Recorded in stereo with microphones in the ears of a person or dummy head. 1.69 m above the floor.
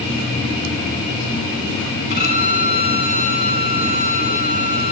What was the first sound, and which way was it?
A violin, 30° right (ahead or behind).